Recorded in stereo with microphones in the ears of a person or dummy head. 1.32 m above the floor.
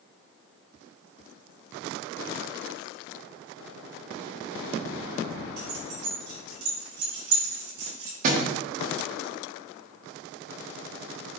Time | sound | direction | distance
5.6 | keys jangling | 60° right (ahead or behind) | 3 m
8.2 | a thud | 45° right (ahead or behind) | 1.1 m